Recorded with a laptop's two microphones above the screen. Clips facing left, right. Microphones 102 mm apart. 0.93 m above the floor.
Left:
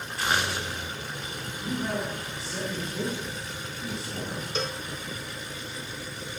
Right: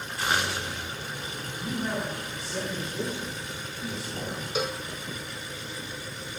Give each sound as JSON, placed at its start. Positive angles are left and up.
{"t": 1.6, "sound": "a man speaking", "side_deg": 0, "distance_m": 8.0}
{"t": 4.5, "sound": "a cowbell", "side_deg": -10, "distance_m": 0.7}